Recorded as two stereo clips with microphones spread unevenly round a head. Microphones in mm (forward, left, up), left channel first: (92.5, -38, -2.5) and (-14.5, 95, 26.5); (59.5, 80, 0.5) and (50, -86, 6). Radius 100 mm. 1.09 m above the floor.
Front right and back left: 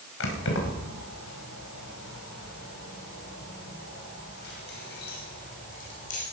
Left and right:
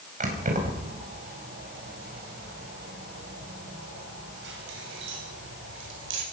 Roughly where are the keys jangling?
Ahead right.